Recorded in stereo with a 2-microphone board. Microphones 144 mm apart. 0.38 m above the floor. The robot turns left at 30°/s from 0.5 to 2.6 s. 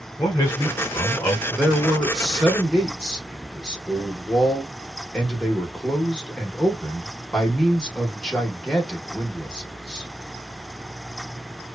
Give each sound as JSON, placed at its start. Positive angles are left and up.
{"t": 0.2, "sound": "a man speaking", "side_deg": 25, "distance_m": 1.2}
{"t": 1.5, "sound": "a man speaking", "side_deg": -5, "distance_m": 0.9}